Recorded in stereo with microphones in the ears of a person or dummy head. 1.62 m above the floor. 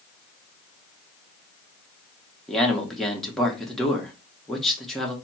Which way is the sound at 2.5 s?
5° right (ahead or behind).